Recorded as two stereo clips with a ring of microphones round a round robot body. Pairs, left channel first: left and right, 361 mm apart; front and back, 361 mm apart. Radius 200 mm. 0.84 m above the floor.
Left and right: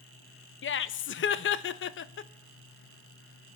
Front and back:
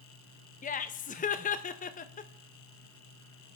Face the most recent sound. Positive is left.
turn(degrees=55)